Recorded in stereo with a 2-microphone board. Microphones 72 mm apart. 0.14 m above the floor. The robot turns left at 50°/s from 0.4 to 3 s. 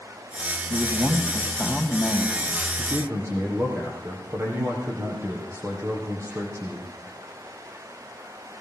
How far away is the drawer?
I don't hear a drawer.